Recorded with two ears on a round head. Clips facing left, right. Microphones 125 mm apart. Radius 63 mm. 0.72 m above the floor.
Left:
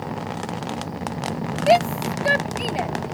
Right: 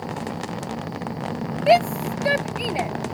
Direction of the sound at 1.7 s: 5° right (ahead or behind).